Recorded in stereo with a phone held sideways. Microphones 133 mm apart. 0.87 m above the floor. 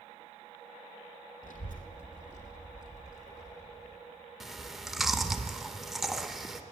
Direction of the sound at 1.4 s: 80° left.